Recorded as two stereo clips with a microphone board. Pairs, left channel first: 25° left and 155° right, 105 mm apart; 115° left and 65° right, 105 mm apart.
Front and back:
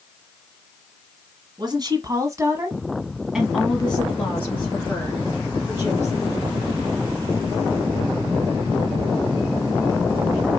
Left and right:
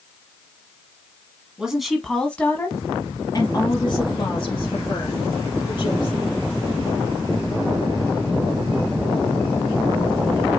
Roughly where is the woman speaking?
Behind right.